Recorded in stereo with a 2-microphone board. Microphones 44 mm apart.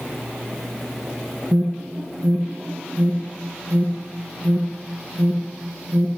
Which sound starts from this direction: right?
An alarm, at 1.5 s.